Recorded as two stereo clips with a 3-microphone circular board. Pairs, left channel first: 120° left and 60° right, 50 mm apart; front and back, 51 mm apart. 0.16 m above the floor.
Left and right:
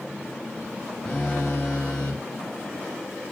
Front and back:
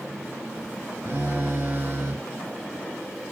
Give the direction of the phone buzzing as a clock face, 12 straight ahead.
6 o'clock.